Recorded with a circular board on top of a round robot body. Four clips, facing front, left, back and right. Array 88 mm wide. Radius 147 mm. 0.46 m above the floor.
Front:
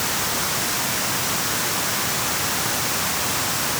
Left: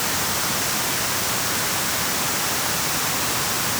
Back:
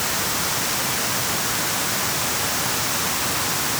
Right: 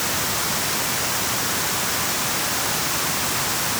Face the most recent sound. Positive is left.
No sound to turn to.